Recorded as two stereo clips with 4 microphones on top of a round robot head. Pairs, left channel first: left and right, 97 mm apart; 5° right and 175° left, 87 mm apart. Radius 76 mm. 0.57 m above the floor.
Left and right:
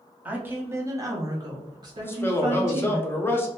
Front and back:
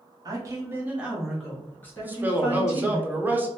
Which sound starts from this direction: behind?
A woman speaking, at 0.2 s.